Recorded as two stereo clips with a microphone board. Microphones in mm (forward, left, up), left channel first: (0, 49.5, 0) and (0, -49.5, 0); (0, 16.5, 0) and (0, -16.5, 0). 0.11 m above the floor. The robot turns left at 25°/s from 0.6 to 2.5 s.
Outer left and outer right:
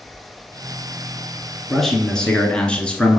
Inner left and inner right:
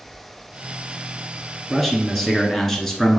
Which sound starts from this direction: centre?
A man speaking, at 1.7 s.